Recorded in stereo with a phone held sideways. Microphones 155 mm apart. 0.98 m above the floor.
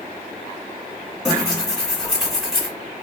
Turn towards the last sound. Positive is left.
turn(degrees=-5)  # may be behind; listen again after turning